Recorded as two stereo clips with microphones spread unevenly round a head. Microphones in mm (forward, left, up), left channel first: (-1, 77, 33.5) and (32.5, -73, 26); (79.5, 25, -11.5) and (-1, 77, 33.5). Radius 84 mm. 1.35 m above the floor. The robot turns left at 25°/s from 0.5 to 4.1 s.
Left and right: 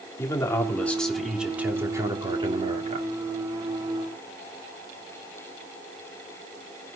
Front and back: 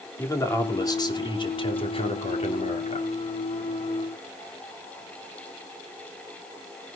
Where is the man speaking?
30° left, 3 m; by 3.1 s 35° right, 3 m.